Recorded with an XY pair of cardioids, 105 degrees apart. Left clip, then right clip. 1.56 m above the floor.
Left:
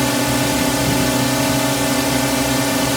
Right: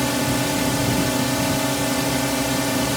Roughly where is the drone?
Ahead left.